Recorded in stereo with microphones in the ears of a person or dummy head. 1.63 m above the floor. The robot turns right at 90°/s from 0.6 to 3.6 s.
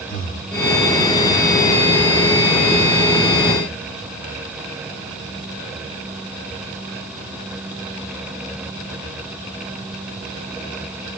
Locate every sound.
0.1 s breathing: 50° left (ahead or behind), 4 m